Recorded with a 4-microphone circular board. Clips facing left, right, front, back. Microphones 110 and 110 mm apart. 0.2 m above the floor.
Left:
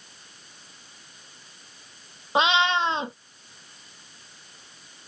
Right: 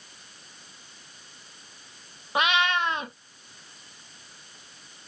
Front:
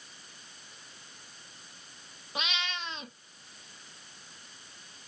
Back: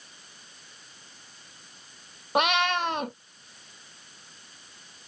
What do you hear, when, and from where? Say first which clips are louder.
2.4 s a cat meowing: left 3 dB, back 13 dB; 155° left